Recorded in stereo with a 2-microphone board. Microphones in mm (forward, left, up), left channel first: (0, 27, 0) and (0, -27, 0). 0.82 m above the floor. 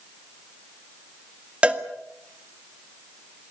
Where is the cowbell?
20° right (ahead or behind), 1.6 m.